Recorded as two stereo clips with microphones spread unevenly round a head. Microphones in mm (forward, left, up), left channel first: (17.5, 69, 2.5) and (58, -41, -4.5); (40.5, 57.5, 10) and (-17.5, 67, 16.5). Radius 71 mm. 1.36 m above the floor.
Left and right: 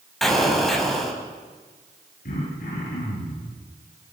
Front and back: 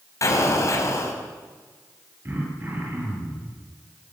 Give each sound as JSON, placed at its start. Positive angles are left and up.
{"t": 0.2, "sound": "an explosion", "azimuth_deg": 20, "distance_m": 4.5}
{"t": 2.2, "sound": "throat clearing", "azimuth_deg": 120, "distance_m": 9.0}